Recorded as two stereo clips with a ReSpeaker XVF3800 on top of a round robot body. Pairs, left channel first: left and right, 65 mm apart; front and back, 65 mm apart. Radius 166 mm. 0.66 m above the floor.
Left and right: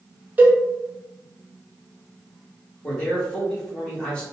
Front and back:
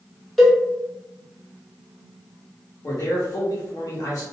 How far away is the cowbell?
About 1.2 m.